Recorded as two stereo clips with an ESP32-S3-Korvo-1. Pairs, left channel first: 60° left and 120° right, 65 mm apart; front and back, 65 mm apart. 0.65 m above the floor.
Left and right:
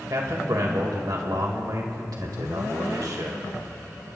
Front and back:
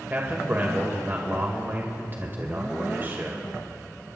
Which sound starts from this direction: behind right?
A man speaking, at 0.1 s.